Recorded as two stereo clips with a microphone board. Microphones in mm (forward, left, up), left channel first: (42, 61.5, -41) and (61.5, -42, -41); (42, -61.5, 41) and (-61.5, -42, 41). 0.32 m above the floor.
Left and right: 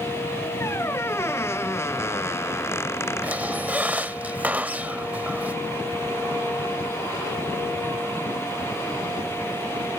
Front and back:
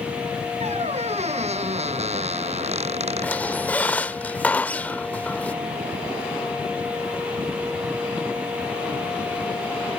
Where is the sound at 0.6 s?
165° left.